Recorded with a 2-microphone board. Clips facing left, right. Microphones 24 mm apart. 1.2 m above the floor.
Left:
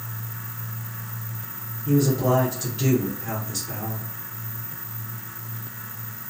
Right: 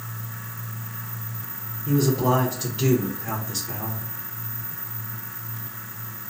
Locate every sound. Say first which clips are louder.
1.9 s a man speaking: even; 15° right (ahead or behind), 0.6 m